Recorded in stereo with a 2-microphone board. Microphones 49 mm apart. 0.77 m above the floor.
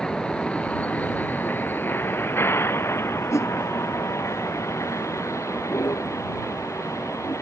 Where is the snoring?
I don't hear snoring.